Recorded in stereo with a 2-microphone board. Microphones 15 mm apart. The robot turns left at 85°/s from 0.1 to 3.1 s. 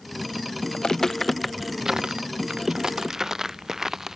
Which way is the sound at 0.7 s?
60° left (ahead or behind).